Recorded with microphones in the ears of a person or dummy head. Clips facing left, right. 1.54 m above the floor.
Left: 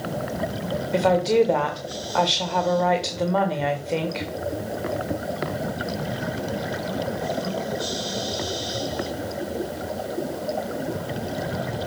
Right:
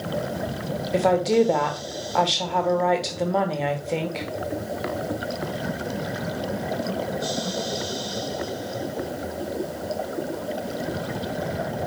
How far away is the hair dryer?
No hair dryer in this recording.